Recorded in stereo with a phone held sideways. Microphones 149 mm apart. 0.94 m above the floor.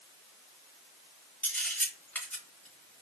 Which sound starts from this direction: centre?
A camera shutter, at 1.4 s.